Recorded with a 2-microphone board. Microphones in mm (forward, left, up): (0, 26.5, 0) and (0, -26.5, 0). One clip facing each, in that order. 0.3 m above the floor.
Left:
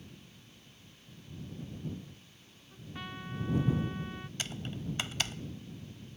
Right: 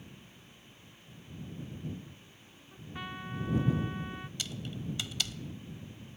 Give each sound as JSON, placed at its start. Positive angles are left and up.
{"t": 2.7, "sound": "a trumpet", "side_deg": -10}
{"t": 4.4, "sound": "typing on a keyboard", "side_deg": 40}